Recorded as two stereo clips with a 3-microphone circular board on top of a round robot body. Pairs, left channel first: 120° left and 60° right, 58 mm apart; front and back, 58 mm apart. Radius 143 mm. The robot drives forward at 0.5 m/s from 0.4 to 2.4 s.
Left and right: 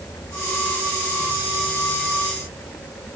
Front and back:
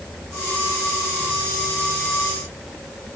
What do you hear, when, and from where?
Only background noise.